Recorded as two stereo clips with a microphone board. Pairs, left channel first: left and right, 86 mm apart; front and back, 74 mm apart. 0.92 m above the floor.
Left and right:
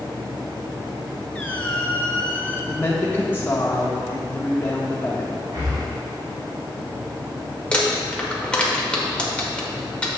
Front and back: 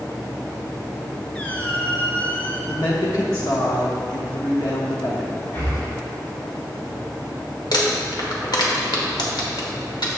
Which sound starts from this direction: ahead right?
Breathing, at 5.5 s.